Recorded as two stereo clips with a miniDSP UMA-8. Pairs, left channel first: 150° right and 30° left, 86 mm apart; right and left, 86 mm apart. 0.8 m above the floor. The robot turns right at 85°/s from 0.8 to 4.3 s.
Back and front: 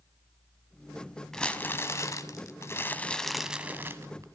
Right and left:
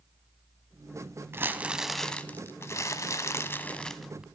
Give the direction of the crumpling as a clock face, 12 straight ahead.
8 o'clock.